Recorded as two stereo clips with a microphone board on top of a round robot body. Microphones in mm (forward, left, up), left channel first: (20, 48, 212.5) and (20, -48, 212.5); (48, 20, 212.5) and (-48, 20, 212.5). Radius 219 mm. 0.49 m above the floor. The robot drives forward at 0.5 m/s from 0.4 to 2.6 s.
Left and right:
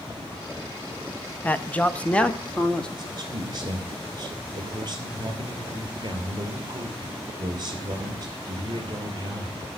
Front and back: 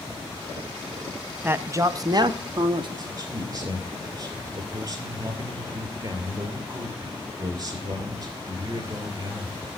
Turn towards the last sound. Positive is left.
turn(degrees=-135)